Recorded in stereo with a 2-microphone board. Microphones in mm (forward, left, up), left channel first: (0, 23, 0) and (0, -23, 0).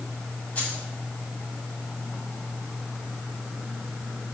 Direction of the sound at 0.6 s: 30° left (ahead or behind).